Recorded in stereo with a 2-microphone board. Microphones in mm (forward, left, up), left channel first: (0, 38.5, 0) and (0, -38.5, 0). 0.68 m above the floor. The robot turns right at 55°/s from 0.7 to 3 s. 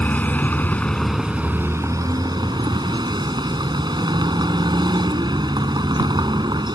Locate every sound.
0.0 s a vehicle: 160° left; by 6.8 s 75° right